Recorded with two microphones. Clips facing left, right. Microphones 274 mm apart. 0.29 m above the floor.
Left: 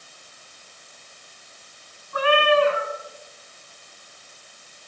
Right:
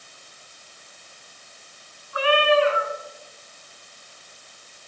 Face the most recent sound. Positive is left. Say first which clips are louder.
# even
turn(degrees=55)  # may be behind; listen again after turning